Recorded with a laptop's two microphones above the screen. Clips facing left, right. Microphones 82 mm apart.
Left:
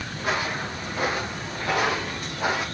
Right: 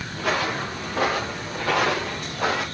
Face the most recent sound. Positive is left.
turn(degrees=-80)